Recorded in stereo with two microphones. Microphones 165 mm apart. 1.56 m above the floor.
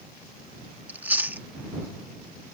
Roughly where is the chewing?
Centre.